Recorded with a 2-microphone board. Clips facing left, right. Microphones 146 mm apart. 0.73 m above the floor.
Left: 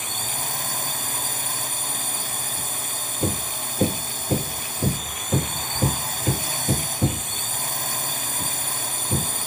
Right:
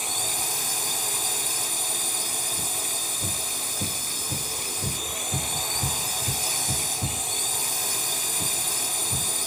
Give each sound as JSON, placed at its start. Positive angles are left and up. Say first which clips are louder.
{"t": 0.0, "sound": "a drone", "louder": "left 1 dB", "side_deg": 55}
{"t": 3.2, "sound": "hammering", "louder": "left 8 dB", "side_deg": 75}